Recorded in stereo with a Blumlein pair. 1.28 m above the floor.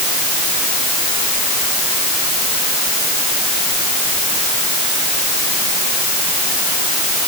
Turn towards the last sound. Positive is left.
No sound to turn to.